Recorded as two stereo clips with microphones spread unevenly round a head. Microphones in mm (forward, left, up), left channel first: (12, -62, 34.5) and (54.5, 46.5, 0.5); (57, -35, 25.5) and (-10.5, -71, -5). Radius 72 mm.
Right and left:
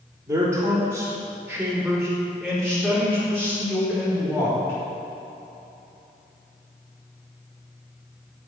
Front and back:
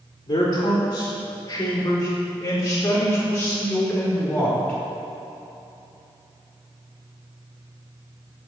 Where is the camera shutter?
I don't hear a camera shutter.